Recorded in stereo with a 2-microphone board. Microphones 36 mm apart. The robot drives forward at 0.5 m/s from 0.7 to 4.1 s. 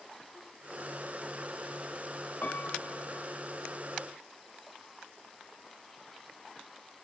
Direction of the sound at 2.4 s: 50° left (ahead or behind).